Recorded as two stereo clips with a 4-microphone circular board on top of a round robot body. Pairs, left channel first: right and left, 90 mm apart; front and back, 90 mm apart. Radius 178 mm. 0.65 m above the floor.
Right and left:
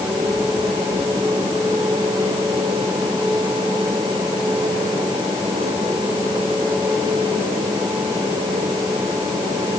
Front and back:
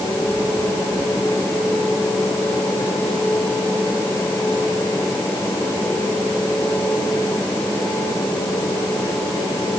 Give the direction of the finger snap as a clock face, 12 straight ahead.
No finger snap in this recording.